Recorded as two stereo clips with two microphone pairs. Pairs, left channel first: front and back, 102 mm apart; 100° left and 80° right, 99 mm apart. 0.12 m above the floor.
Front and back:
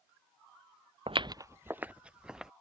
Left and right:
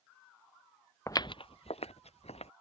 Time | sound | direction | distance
1.1 | footsteps | 160° left | ?